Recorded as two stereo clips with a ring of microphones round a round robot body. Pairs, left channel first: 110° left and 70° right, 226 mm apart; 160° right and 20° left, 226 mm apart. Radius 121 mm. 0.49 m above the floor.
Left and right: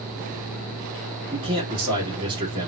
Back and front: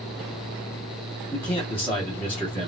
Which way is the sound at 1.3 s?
90° right.